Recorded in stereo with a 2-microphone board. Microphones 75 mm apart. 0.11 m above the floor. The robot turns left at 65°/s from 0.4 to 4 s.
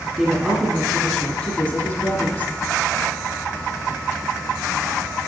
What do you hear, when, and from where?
0.2 s a woman speaking: 10° right (ahead or behind), 1.5 m; by 2.5 s 20° left (ahead or behind), 1.5 m